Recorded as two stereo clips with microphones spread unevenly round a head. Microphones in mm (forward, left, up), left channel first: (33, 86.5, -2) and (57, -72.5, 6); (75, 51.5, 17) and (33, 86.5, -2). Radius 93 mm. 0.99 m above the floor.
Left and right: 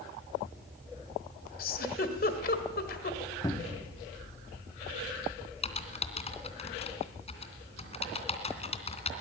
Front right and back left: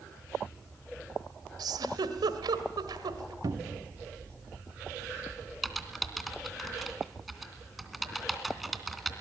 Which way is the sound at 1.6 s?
145° left.